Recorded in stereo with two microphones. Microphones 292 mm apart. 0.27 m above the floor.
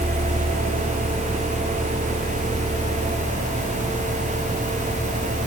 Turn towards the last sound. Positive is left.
No sound to turn to.